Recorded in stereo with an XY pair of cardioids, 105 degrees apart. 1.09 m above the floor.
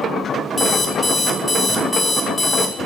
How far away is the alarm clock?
About 0.5 m.